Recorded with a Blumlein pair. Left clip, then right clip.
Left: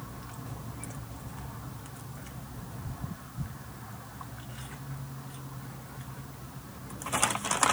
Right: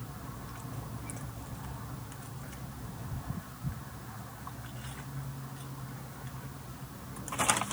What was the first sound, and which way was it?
Only background noise.